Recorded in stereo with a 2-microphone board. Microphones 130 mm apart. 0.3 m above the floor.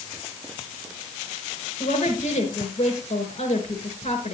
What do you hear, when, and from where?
1.8 s a woman speaking: 50° left (ahead or behind), 4 m